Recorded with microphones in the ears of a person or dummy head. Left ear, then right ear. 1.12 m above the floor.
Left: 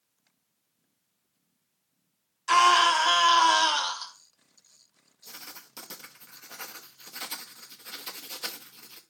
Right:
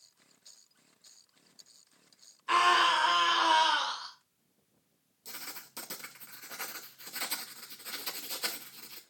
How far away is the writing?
About 0.9 m.